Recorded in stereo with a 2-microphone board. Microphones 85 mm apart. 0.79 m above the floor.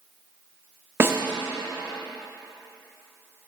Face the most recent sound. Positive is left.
turn(degrees=-30)  # may be behind; listen again after turning